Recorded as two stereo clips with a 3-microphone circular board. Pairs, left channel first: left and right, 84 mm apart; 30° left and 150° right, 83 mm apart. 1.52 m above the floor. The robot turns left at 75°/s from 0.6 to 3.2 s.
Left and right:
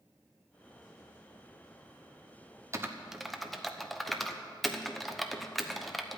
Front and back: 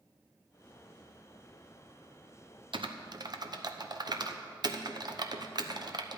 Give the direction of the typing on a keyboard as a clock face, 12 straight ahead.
5 o'clock.